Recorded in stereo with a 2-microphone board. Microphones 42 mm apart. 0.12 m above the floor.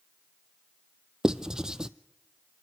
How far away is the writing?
About 0.6 m.